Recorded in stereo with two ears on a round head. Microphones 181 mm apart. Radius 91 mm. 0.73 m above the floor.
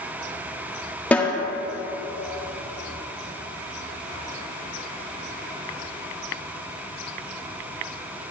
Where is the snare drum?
10° left (ahead or behind), 1.4 m.